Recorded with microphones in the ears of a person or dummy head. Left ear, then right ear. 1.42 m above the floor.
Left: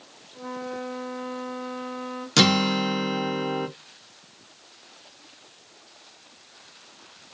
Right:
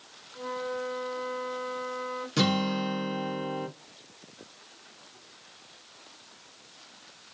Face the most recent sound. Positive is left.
turn(degrees=40)  # may be behind; listen again after turning